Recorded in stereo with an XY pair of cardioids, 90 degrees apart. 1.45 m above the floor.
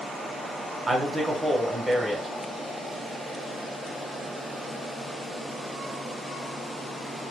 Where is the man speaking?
20° right, 1.0 m.